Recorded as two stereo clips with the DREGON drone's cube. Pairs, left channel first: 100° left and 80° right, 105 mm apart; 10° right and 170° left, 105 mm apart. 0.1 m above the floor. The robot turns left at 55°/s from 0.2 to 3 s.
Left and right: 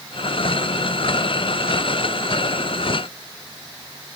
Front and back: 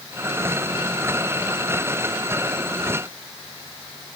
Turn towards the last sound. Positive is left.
No sound to turn to.